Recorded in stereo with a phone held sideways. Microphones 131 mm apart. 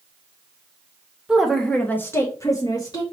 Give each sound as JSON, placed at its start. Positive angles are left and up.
{"t": 1.3, "sound": "a woman speaking", "side_deg": -5, "distance_m": 0.7}